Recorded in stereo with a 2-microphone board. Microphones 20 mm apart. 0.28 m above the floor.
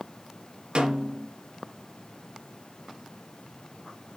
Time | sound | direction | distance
0.8 | a snare drum | 75° right (ahead or behind) | 3 m